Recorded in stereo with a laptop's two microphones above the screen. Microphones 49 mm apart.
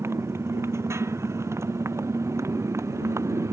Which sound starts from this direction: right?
A motorcycle, at 0.0 s.